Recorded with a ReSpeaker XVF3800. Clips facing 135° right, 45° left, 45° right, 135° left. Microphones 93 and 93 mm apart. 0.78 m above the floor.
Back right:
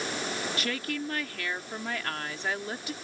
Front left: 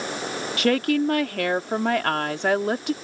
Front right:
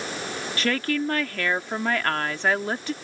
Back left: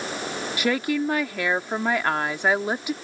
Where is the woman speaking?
60° left.